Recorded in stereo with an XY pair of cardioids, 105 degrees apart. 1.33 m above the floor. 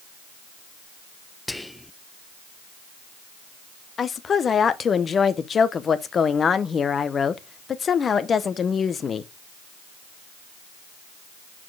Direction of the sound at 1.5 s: 5° left.